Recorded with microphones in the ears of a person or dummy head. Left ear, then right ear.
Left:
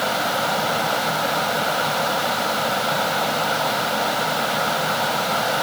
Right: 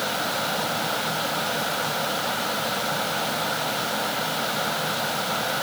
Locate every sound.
0.0 s a fan: 15° left (ahead or behind)